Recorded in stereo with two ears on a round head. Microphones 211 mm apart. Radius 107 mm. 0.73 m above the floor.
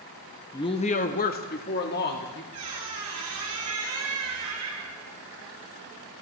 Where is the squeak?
65° right (ahead or behind), 2.5 m.